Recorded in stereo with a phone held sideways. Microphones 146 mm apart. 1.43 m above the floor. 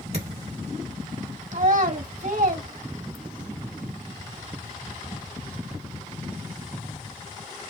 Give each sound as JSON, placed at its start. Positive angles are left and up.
{"t": 0.1, "sound": "a thud", "side_deg": -50, "distance_m": 2.0}
{"t": 1.5, "sound": "a child speaking", "side_deg": -65, "distance_m": 1.8}